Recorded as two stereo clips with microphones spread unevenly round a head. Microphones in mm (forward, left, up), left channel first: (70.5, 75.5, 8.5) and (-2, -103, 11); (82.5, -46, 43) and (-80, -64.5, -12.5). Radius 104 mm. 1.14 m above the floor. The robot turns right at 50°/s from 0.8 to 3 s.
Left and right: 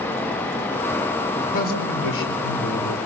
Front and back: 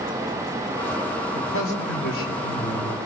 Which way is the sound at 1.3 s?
15° left.